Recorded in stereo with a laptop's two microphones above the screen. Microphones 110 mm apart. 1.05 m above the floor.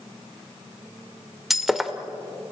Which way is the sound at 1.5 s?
Centre (ahead or behind).